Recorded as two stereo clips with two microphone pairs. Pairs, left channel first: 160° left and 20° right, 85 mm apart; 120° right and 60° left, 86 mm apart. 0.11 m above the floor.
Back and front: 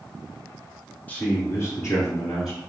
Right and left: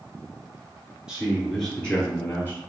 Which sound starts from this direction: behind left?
A man speaking, at 1.1 s.